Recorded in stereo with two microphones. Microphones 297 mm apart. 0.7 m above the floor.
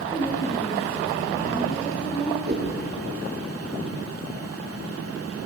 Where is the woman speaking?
20° left (ahead or behind), 7 m.